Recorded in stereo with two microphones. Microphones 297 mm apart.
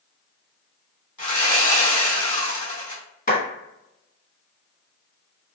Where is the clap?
30° left (ahead or behind), 1.1 m.